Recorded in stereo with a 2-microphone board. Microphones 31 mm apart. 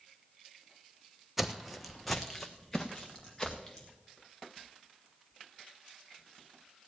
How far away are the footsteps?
About 0.8 m.